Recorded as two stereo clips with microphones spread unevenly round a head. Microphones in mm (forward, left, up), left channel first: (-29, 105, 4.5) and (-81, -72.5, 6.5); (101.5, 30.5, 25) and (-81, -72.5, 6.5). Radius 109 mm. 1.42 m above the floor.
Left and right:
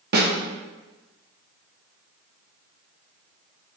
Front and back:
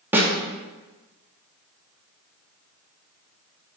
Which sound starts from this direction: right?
A snare drum, at 0.1 s.